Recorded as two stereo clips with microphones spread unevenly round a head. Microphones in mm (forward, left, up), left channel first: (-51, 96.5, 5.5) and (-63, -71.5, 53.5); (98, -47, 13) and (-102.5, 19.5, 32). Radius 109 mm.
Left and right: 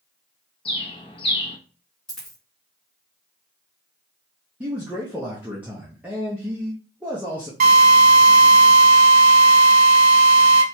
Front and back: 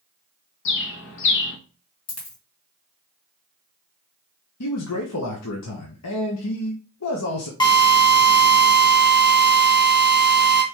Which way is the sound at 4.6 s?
15° right.